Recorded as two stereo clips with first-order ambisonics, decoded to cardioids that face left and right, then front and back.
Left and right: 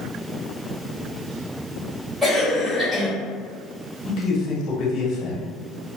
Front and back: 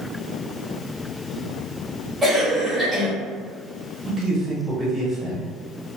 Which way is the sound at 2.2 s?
130° right.